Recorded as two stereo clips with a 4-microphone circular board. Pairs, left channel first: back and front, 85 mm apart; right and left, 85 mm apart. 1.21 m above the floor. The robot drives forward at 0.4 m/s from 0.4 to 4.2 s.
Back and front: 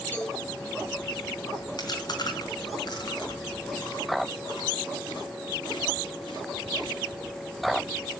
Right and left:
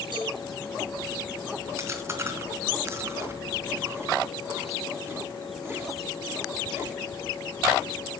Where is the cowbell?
115° left, 9 m.